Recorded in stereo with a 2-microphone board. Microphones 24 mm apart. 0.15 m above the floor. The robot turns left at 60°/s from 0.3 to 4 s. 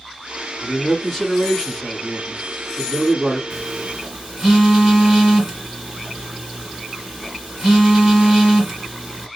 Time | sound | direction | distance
0.6 | a man speaking | 15° left (ahead or behind) | 1.3 m
3.5 | a phone buzzing | 15° right (ahead or behind) | 2 m